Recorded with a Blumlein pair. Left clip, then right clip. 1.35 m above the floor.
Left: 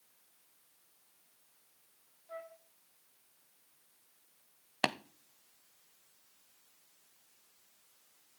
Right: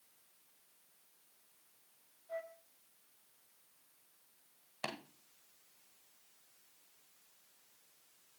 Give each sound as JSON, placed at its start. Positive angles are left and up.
{"t": 2.3, "sound": "a flute", "azimuth_deg": 70, "distance_m": 1.1}
{"t": 4.8, "sound": "tapping", "azimuth_deg": 25, "distance_m": 0.6}